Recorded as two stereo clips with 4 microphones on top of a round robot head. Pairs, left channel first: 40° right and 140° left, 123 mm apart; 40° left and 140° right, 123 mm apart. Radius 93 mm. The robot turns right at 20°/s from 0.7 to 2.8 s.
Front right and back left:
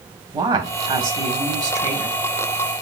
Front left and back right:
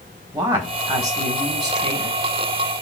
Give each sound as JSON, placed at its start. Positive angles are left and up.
{"t": 0.3, "sound": "a woman speaking", "azimuth_deg": 165, "distance_m": 1.5}